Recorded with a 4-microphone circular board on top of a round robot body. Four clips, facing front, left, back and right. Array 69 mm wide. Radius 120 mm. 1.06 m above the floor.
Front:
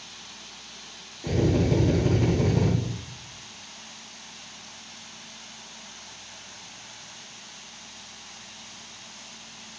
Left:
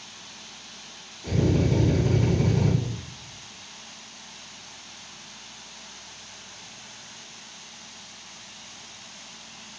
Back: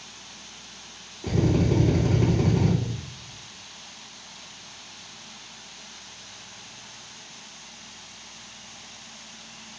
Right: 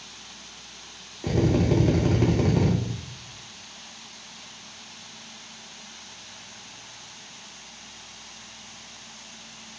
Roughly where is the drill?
Right.